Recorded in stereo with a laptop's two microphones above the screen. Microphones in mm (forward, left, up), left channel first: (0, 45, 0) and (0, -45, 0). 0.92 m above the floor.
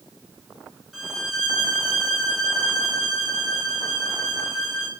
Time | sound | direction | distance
0.9 | a violin | 5° right (ahead or behind) | 1.6 m